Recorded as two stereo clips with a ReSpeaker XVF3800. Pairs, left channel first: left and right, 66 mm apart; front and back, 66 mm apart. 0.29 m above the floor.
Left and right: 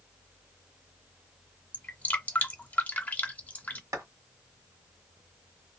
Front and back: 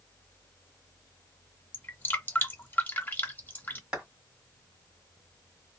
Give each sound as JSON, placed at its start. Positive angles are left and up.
{"t": 1.7, "sound": "dripping", "azimuth_deg": 35, "distance_m": 0.7}
{"t": 3.9, "sound": "a clap", "azimuth_deg": -105, "distance_m": 2.0}